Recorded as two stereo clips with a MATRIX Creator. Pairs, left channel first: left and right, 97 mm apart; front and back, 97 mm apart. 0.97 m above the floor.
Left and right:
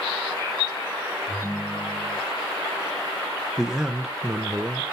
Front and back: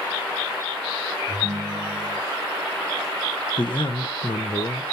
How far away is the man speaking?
About 0.6 m.